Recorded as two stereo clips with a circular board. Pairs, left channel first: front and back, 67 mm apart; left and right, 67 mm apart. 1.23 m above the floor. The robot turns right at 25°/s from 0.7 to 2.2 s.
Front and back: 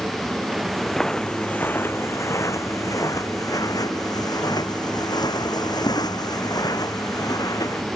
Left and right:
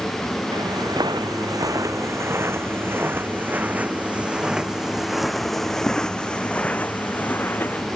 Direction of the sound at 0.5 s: 95° right.